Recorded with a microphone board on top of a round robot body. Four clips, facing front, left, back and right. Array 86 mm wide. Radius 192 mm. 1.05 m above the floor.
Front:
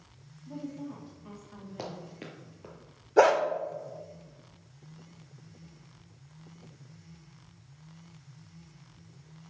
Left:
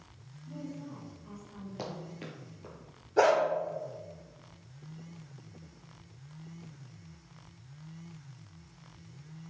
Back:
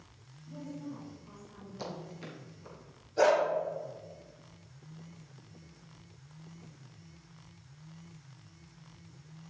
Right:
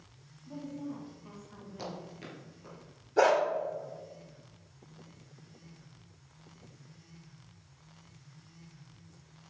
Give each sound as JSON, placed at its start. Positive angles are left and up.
{"t": 0.5, "sound": "a woman speaking", "azimuth_deg": -25, "distance_m": 3.0}
{"t": 1.8, "sound": "running footsteps", "azimuth_deg": 25, "distance_m": 1.6}
{"t": 3.2, "sound": "a dog barking", "azimuth_deg": 0, "distance_m": 1.2}